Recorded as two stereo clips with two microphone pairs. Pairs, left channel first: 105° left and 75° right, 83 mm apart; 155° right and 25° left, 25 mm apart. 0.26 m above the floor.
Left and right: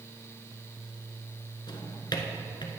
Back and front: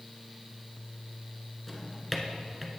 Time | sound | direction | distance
1.7 | a drawer | 120° left | 1.1 m